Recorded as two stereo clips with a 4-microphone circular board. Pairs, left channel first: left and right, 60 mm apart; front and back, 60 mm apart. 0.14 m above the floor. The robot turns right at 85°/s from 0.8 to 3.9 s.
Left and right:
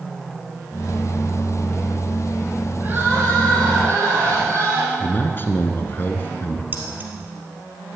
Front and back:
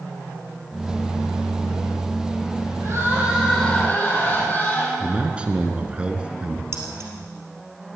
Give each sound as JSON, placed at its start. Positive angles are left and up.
{"t": 2.8, "sound": "crying", "azimuth_deg": -150, "distance_m": 5.0}
{"t": 5.0, "sound": "a man speaking", "azimuth_deg": 120, "distance_m": 1.6}
{"t": 6.7, "sound": "keys jangling", "azimuth_deg": -140, "distance_m": 2.5}